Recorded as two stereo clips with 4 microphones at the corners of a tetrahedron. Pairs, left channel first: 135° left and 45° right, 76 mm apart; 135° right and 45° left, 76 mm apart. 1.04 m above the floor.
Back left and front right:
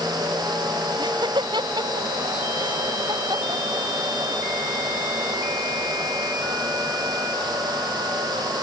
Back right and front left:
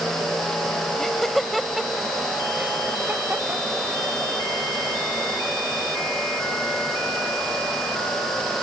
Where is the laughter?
50° right; by 4.4 s 10° right.